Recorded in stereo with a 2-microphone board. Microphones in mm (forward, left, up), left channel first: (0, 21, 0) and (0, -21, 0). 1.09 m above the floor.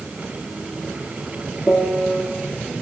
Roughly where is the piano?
Left.